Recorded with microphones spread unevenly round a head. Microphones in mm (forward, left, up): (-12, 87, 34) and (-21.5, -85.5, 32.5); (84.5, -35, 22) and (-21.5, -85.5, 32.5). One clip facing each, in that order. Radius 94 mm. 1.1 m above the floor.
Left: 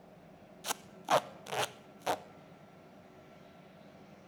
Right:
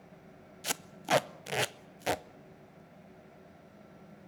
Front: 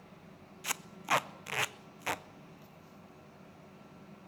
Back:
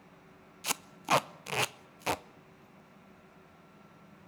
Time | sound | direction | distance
0.6 | tape being pulled | 120° right | 0.6 m